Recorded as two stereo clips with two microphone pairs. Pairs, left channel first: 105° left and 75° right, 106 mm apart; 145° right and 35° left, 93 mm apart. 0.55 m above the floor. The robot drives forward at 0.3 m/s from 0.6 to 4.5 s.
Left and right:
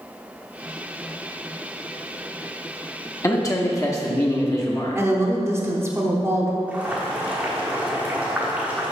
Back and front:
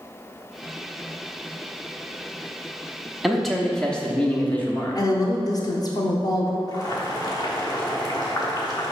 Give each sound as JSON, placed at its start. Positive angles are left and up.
{"t": 3.2, "sound": "a man speaking", "azimuth_deg": 115, "distance_m": 0.8}
{"t": 5.0, "sound": "a woman speaking", "azimuth_deg": -125, "distance_m": 0.9}
{"t": 6.7, "sound": "boiling", "azimuth_deg": -140, "distance_m": 1.1}